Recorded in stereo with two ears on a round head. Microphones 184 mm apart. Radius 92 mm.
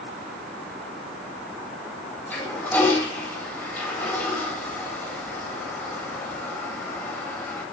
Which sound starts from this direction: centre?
A toilet flushing, at 2.3 s.